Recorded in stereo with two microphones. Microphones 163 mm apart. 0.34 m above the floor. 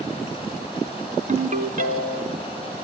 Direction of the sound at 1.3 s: 50° right (ahead or behind).